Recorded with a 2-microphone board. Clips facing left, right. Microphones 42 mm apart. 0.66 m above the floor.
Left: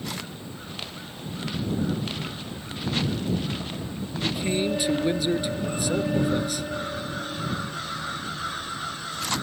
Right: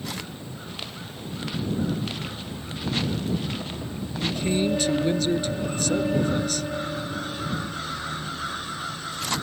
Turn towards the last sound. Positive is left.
turn(degrees=10)  # may be behind; listen again after turning